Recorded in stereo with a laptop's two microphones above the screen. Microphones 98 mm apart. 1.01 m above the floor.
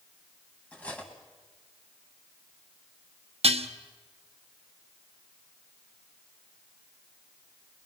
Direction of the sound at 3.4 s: 85° right.